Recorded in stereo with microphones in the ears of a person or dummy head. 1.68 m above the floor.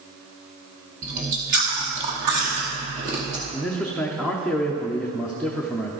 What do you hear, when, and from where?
1.0 s chewing: 30° right (ahead or behind), 0.9 m
3.5 s a man speaking: centre (ahead or behind), 0.5 m